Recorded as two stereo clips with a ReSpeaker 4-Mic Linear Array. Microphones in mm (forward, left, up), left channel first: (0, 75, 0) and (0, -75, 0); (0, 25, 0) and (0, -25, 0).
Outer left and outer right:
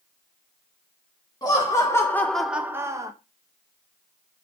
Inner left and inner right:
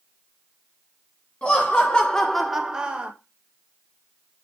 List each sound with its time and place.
1.4 s laughter: 20° left (ahead or behind), 1.6 m; by 3.1 s 20° right (ahead or behind), 1.2 m